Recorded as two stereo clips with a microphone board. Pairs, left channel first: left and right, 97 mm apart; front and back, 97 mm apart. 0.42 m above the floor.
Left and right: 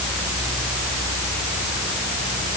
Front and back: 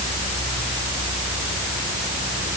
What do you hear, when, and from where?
Only background noise.